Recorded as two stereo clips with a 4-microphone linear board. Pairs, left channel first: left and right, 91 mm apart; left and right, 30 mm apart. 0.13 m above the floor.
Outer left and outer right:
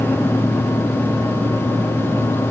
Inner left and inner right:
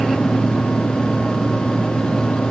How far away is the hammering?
I don't hear hammering.